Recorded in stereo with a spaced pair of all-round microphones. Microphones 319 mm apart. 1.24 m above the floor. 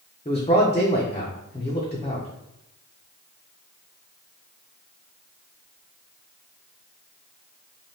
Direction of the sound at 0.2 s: 20° left (ahead or behind).